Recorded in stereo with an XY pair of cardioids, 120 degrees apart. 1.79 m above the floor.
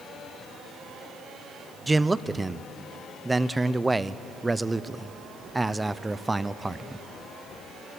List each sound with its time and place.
1.9 s a man speaking: 15° right, 0.8 m